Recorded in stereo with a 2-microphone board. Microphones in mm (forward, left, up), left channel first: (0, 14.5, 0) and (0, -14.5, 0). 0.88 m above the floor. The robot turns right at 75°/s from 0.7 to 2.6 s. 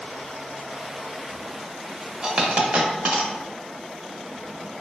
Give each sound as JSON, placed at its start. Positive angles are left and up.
{"t": 2.2, "sound": "a dropped coin", "side_deg": -20, "distance_m": 0.6}